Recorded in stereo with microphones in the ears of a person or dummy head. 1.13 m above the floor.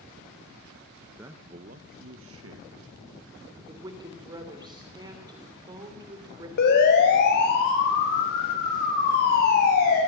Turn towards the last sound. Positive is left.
turn(degrees=50)  # may be behind; listen again after turning